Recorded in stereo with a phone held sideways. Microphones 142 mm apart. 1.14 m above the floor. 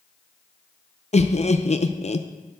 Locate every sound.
1.1 s laughter: 50° left (ahead or behind), 0.6 m